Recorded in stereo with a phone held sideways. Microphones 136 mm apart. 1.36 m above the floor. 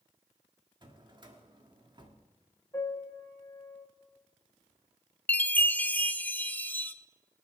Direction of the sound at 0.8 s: 35° right (ahead or behind).